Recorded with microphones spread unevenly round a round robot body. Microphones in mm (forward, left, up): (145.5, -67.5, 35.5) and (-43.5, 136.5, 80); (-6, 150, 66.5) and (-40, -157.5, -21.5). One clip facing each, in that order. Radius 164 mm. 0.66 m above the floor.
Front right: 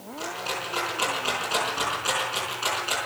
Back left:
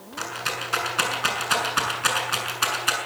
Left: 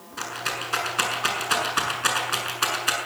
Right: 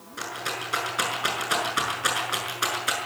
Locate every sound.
0.2 s a rattle: 165° left, 7 m